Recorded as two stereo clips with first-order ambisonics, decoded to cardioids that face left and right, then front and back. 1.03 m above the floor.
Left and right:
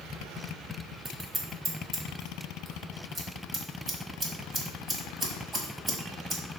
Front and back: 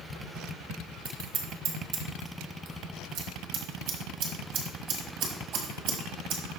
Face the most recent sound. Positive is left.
turn(degrees=-160)